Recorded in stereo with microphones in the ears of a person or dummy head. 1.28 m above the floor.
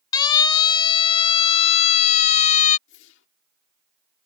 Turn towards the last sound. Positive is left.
turn(degrees=75)  # may be behind; listen again after turning